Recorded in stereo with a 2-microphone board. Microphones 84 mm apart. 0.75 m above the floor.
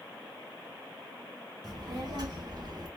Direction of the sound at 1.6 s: 55° right (ahead or behind).